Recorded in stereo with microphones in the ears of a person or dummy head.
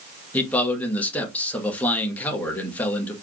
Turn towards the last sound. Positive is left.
turn(degrees=10)  # may be behind; listen again after turning